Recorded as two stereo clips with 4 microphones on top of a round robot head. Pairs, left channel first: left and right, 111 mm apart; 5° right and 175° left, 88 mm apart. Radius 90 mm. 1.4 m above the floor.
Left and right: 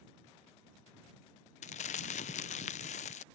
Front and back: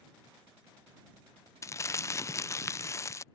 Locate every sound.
1.6 s crumpling: 55° left